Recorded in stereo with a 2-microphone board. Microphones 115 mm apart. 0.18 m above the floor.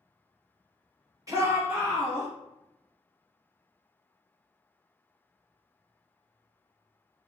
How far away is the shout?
About 1.1 m.